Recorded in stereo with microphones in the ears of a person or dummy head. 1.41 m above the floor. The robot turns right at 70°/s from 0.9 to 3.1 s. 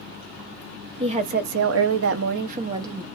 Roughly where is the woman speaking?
Behind right.